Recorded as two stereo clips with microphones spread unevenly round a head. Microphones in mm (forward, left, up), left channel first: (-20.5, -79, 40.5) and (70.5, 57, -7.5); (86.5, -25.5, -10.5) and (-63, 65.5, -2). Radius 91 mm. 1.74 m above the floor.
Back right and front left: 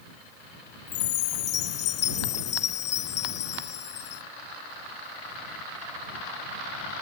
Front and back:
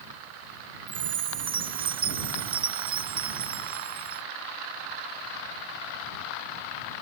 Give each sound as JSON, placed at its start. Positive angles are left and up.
{"t": 0.9, "sound": "a chime", "azimuth_deg": -150}